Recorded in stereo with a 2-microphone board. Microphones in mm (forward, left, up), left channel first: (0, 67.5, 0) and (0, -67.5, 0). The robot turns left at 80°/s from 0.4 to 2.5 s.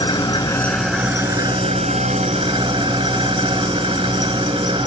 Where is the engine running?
30° left, 1.2 m; by 4.9 s 135° right, 1.2 m.